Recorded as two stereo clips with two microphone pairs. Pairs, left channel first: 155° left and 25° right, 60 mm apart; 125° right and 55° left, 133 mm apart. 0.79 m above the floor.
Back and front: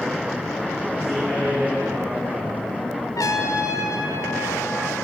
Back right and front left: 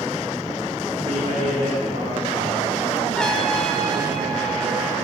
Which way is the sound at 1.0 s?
60° left.